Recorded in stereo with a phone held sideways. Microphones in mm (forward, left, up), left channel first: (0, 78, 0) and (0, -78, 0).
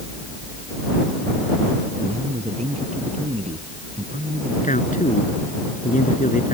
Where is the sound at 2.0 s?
45° right (ahead or behind).